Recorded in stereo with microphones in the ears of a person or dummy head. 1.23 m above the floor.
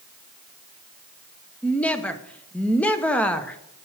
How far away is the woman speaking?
About 0.8 m.